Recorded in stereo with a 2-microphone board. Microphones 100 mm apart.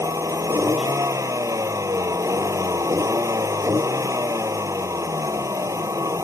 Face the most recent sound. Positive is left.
turn(degrees=-35)  # may be behind; listen again after turning